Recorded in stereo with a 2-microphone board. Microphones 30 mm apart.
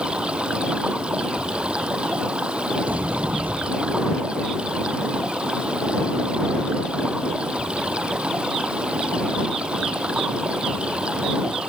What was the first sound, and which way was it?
Running water, 35° right (ahead or behind).